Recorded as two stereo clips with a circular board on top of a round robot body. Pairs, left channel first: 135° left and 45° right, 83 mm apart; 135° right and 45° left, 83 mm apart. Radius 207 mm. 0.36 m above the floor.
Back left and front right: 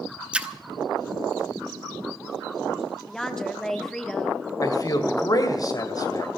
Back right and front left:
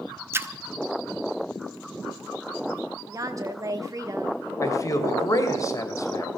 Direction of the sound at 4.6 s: 175° left.